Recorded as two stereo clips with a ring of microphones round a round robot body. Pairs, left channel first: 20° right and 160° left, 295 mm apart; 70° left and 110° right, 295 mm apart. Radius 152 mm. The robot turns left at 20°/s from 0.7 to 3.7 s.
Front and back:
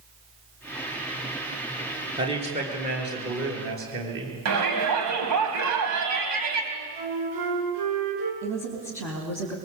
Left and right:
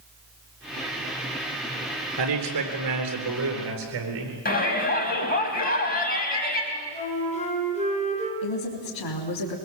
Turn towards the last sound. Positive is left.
turn(degrees=75)